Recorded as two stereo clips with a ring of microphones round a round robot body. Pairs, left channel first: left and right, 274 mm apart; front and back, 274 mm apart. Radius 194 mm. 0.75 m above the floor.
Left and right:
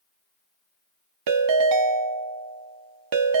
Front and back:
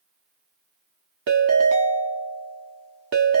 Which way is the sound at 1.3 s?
120° right.